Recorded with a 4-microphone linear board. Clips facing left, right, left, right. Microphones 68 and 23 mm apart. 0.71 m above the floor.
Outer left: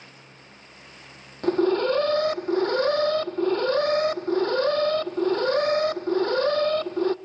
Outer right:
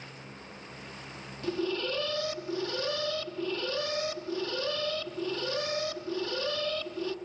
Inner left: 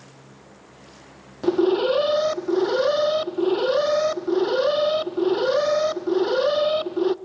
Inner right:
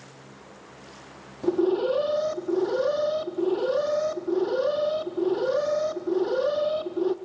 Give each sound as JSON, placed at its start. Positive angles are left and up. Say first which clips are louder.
{"t": 1.4, "sound": "an alarm", "louder": "outer left 11 dB, inner left 4 dB", "side_deg": 45, "distance_m": 0.6}